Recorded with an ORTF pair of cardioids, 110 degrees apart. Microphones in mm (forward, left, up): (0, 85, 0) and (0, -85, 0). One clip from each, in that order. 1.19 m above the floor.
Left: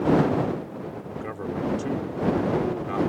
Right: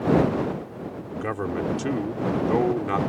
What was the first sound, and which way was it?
A man speaking, 45° right.